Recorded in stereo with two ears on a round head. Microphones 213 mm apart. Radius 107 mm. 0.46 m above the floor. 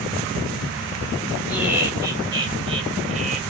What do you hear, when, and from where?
1.5 s laughter: 5° right (ahead or behind), 1.9 m; by 3.4 s 35° right (ahead or behind), 1.7 m